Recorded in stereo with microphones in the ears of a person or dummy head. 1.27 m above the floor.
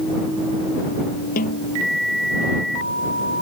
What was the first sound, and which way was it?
A snare drum, 50° left (ahead or behind).